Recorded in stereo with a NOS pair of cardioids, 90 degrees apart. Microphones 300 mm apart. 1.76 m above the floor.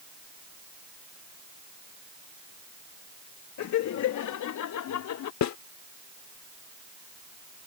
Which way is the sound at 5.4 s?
70° left.